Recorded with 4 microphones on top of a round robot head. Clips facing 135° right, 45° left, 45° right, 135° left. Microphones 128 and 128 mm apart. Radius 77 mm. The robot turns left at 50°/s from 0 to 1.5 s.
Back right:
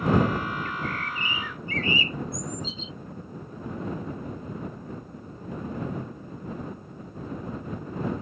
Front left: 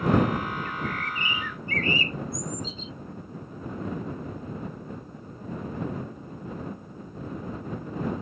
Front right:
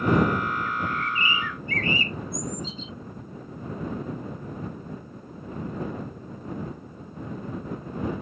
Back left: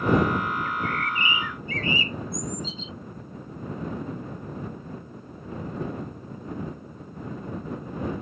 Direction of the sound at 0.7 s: 40° left.